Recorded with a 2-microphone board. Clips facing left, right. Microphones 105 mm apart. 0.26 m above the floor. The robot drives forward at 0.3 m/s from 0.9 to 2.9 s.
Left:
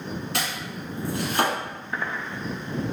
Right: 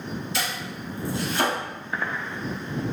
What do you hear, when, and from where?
0.3 s chopping: 65° left (ahead or behind), 1.7 m; by 1.6 s 60° left (ahead or behind), 1.8 m